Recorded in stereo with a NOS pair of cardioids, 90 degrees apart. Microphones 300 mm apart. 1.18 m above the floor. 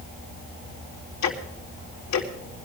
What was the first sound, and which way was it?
Ticking, 60° left.